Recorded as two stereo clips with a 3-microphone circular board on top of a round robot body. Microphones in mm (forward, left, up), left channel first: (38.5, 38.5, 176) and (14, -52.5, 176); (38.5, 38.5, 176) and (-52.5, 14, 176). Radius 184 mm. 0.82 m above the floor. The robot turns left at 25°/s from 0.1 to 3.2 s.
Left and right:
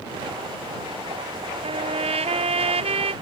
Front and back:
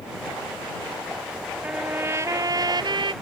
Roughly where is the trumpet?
Right.